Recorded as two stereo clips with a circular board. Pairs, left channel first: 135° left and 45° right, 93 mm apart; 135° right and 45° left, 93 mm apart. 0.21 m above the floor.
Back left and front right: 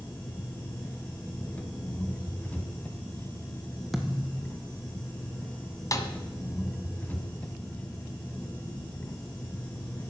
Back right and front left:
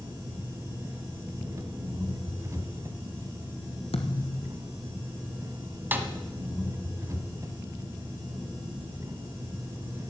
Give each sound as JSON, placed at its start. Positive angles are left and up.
{"t": 0.0, "sound": "an engine running", "azimuth_deg": 75, "distance_m": 1.5}
{"t": 3.9, "sound": "a thud", "azimuth_deg": -135, "distance_m": 1.4}
{"t": 5.9, "sound": "a snare drum", "azimuth_deg": 105, "distance_m": 1.3}